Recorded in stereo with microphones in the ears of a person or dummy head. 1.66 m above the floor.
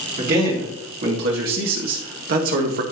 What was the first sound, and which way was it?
A man speaking, 55° right (ahead or behind).